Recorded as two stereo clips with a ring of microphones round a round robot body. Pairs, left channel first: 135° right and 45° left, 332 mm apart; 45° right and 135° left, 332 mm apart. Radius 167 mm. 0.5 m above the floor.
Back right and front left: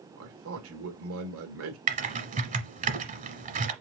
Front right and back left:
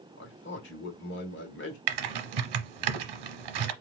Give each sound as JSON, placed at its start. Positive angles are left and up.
{"t": 0.2, "sound": "a man speaking", "azimuth_deg": 5, "distance_m": 1.4}
{"t": 1.9, "sound": "typing on a keyboard", "azimuth_deg": 115, "distance_m": 0.9}